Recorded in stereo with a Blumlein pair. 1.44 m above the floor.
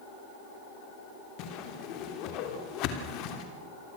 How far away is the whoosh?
About 3 m.